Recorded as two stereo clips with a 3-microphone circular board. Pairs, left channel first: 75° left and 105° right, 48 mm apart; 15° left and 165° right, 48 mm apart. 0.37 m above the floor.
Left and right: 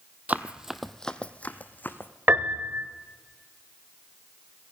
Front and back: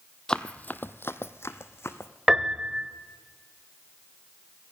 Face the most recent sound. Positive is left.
turn(degrees=-90)